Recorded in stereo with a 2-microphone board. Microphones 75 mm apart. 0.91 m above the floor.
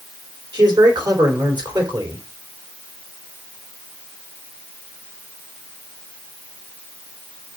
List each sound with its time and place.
0.5 s a man speaking: 70° right (ahead or behind), 3.5 m